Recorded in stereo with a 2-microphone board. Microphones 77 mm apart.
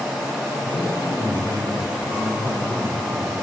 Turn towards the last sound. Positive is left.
turn(degrees=10)  # may be behind; listen again after turning